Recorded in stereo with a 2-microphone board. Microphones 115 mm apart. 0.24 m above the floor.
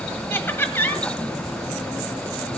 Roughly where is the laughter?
Centre.